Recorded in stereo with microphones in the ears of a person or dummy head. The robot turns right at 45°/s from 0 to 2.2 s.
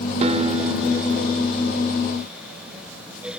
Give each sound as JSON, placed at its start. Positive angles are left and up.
{"t": 0.2, "sound": "a guitar", "azimuth_deg": -40}